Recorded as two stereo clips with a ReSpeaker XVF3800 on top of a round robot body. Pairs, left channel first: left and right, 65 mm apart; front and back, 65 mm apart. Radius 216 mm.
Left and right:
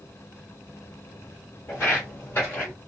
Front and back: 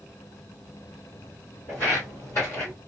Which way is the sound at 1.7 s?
45° left.